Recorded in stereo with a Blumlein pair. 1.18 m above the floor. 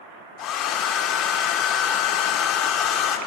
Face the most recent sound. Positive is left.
turn(degrees=35)